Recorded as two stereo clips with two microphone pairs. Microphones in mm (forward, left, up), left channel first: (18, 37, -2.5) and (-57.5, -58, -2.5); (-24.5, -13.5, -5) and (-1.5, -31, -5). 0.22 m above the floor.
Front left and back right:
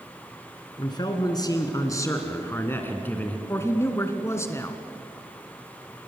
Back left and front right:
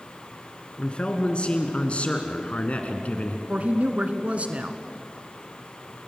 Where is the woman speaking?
15° right, 2 m.